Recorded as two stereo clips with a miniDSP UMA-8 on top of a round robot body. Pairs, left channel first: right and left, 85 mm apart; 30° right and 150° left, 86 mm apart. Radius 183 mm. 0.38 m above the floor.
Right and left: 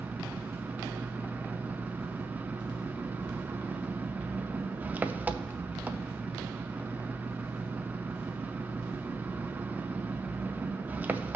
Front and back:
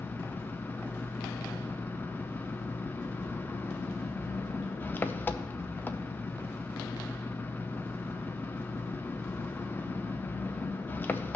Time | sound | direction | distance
0.0 | an engine running | 30° left | 0.8 m